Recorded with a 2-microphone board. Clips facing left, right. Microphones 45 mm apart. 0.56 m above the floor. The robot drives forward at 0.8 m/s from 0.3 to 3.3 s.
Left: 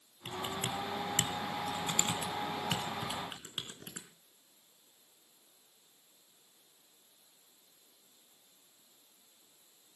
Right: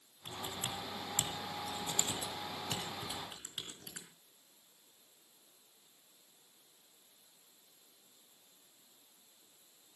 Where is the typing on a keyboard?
85° left, 1.9 m; by 4.1 s 35° left (ahead or behind), 3 m.